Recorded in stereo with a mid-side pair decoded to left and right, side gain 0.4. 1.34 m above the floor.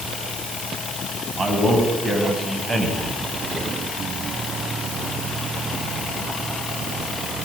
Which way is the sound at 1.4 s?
30° right.